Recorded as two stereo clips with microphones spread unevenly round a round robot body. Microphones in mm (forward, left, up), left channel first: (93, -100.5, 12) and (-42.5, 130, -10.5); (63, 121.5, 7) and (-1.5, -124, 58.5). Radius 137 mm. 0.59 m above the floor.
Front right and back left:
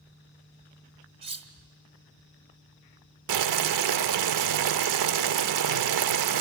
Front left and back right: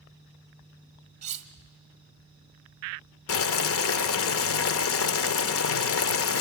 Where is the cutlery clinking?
170° right, 1.0 m.